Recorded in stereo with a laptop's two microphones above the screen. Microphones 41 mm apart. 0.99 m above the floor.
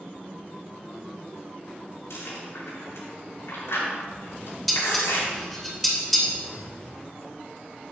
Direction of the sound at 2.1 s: 80° left.